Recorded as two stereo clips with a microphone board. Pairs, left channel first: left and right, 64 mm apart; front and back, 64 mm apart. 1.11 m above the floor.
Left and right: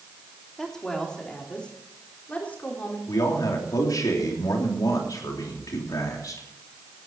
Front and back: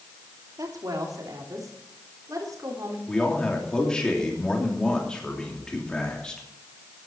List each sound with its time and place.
0.6 s a woman speaking: 175° left, 3 m; by 3.0 s 155° left, 4 m
3.1 s a man speaking: 75° left, 3 m